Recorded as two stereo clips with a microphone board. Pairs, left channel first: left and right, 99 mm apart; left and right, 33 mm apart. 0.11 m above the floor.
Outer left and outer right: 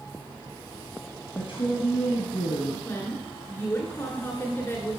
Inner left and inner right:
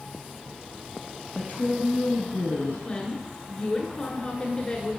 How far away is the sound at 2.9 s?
About 1.3 m.